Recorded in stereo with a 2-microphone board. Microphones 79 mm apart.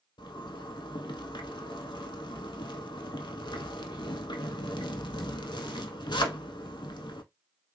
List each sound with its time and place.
0.2 s a zipper: 75° left (ahead or behind), 0.5 m